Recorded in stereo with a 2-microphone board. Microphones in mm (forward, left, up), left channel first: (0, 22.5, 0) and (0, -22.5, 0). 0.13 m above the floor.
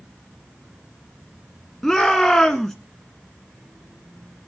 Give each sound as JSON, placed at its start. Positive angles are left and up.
{"t": 1.8, "sound": "a shout", "side_deg": 10, "distance_m": 1.1}